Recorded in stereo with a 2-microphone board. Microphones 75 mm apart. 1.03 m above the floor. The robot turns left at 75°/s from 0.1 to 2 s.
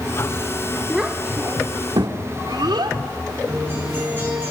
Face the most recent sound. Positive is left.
turn(degrees=-25)  # may be behind; listen again after turning